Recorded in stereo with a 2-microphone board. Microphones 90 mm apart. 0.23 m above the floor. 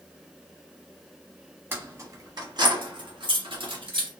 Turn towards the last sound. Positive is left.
turn(degrees=-70)  # may be behind; listen again after turning